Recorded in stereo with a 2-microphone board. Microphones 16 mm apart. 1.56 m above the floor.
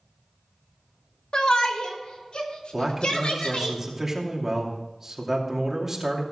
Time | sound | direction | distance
1.3 | a shout | 70° left (ahead or behind) | 2.5 m
2.7 | a man speaking | 15° right (ahead or behind) | 2.5 m